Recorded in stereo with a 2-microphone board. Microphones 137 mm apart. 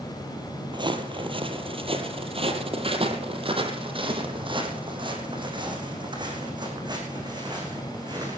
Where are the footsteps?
35° right (ahead or behind), 2 m; by 8.4 s 30° right (ahead or behind), 6 m.